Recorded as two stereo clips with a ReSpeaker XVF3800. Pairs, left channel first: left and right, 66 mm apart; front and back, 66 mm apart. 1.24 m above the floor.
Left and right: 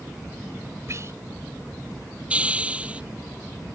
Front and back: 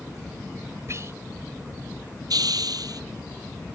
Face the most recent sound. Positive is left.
turn(degrees=-160)